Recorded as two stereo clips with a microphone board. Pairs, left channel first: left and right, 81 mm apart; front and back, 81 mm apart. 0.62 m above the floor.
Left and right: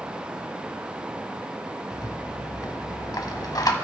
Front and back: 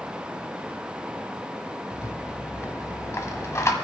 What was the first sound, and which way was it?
A rattle, 50° left.